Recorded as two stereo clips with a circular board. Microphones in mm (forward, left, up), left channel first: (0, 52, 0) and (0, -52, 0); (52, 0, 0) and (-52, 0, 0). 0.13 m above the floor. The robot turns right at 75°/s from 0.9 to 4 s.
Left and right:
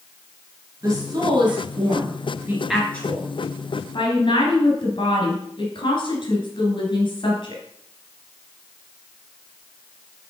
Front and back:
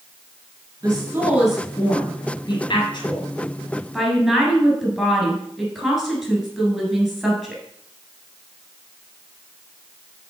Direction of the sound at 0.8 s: 140° right.